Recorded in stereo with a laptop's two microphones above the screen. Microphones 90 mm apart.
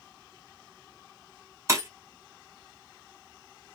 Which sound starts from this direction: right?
Breaking glass, at 1.7 s.